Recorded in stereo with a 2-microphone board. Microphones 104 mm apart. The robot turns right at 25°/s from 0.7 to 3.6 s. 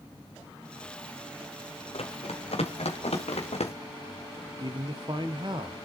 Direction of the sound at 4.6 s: 50° right (ahead or behind).